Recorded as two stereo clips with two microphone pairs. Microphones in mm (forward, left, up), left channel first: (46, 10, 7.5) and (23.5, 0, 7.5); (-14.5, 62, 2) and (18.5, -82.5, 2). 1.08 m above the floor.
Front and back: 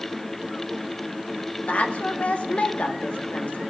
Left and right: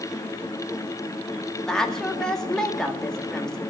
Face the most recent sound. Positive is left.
turn(degrees=15)